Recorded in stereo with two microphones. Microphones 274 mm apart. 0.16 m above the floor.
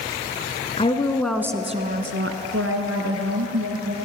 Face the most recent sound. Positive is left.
turn(degrees=-65)  # may be behind; listen again after turning